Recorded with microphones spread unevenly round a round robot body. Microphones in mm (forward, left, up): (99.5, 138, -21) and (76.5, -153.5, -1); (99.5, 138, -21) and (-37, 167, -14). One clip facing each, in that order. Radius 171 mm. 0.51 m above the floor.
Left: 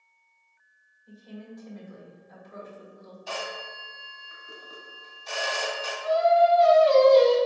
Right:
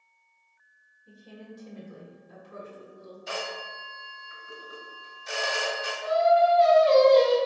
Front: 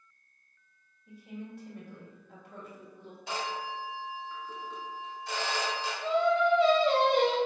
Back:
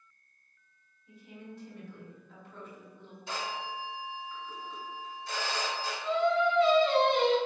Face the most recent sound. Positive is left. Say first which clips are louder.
# left 1 dB, front 1 dB
turn(degrees=-35)